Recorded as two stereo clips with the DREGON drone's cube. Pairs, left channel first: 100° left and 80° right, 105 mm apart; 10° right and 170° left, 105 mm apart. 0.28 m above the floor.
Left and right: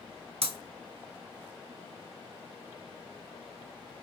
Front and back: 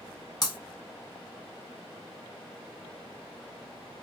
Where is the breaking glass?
60° right, 0.6 m.